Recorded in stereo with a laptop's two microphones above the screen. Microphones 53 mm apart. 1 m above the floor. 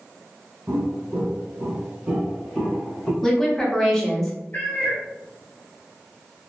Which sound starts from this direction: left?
A cat meowing, at 4.5 s.